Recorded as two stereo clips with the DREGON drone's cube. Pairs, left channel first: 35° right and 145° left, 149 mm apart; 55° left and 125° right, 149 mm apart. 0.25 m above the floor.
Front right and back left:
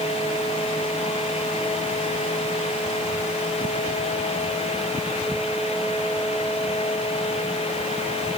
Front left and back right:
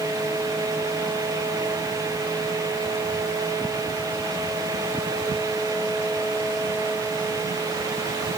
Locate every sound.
Only background noise.